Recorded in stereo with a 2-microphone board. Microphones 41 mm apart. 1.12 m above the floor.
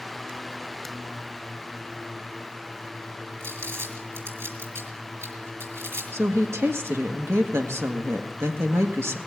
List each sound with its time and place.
3.4 s crumpling: 80° right, 4.5 m
6.1 s a woman speaking: 75° right (ahead or behind), 1.2 m